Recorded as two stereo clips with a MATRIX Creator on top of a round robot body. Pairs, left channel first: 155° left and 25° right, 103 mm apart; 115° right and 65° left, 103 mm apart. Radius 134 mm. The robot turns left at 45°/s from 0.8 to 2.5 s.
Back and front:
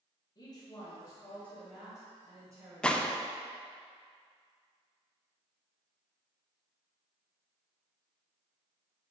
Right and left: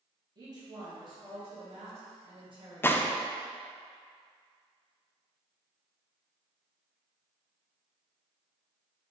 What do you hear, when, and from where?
0.3 s a woman speaking: 115° left, 1.8 m; by 3.2 s 35° left, 1.8 m
2.8 s a gunshot: 135° right, 0.5 m